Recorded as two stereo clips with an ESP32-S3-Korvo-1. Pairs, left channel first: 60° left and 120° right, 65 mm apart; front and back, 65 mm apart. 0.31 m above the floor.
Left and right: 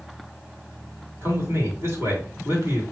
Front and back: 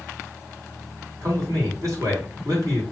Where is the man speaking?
170° right, 3 m.